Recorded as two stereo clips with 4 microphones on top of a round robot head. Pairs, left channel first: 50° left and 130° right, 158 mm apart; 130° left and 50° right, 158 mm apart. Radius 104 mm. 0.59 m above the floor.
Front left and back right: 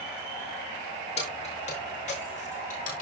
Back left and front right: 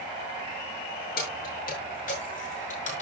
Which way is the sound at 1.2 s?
100° left.